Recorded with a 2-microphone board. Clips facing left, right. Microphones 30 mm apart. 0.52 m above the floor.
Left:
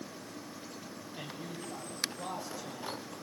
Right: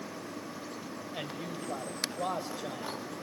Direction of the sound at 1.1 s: 55° right (ahead or behind).